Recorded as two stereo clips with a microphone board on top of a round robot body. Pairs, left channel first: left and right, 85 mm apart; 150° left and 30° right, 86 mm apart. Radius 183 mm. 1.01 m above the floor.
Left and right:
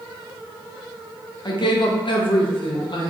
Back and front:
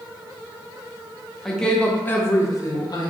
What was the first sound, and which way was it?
A woman speaking, 60° left.